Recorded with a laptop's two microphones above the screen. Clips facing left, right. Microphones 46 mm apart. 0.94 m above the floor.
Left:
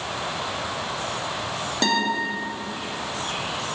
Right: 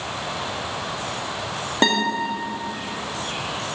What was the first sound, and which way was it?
A guitar, 30° right (ahead or behind).